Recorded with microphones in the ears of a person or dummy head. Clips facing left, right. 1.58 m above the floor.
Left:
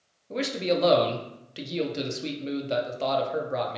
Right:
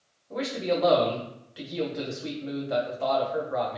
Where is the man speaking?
40° left (ahead or behind), 0.7 m.